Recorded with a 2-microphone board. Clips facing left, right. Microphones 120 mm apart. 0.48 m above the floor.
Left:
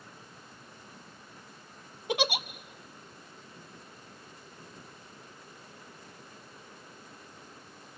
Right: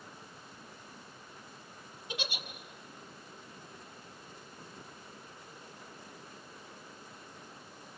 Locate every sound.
2.1 s a giggle: 75° left (ahead or behind), 0.7 m